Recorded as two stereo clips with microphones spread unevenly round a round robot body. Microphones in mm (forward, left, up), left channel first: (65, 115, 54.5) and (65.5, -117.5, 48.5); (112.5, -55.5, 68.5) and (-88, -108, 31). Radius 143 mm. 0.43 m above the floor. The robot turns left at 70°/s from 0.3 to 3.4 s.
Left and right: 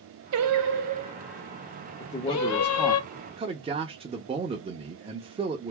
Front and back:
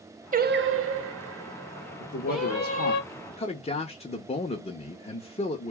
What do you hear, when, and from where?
0.3 s singing: 110° right, 0.6 m; by 3.0 s 60° left, 0.6 m
2.0 s a man speaking: 55° left, 0.9 m; by 5.7 s 40° right, 0.9 m